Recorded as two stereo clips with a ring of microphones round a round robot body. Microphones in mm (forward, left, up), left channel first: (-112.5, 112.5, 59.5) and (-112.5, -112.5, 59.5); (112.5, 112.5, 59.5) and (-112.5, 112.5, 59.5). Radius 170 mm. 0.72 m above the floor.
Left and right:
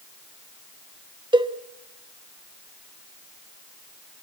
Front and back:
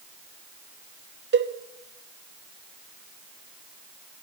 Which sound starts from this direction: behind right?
A cowbell, at 1.3 s.